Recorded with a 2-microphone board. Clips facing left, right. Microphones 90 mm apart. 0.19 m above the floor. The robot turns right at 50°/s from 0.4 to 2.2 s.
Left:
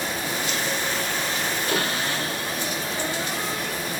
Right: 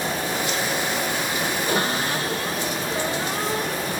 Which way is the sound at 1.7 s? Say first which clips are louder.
Right 2 dB; 20° right (ahead or behind).